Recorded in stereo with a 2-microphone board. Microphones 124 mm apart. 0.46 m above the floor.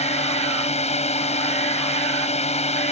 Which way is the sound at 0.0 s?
60° left (ahead or behind).